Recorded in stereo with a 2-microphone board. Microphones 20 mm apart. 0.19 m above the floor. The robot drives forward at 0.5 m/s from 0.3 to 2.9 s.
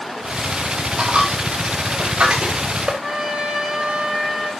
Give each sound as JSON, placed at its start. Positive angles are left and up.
{"t": 1.0, "sound": "a dropped coin", "side_deg": -85, "distance_m": 4.5}
{"t": 3.0, "sound": "a trumpet", "side_deg": -40, "distance_m": 4.0}